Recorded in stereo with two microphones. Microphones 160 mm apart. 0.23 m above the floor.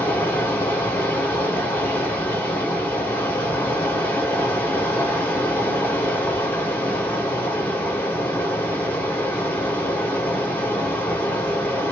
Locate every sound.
0.0 s running water: 10° left (ahead or behind), 1.8 m